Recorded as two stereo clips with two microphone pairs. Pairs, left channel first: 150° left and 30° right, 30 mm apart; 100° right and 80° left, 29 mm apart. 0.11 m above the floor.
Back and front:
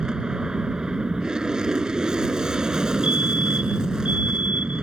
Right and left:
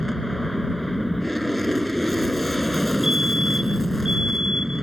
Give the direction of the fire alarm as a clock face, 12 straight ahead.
12 o'clock.